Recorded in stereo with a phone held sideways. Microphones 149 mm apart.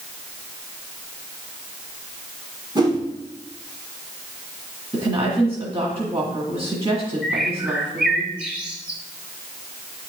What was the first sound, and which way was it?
A whoosh, 30° right (ahead or behind).